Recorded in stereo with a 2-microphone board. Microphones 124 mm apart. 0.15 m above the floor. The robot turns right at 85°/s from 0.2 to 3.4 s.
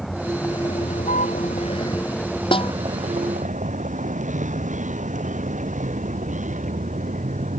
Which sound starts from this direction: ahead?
A vehicle, at 0.0 s.